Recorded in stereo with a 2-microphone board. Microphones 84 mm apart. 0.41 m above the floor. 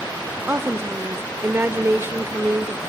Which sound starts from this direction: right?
A woman speaking, at 0.5 s.